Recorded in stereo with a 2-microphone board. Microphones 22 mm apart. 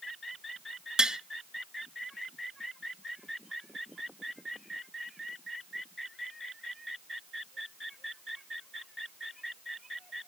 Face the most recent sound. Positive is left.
turn(degrees=-35)  # may be behind; listen again after turning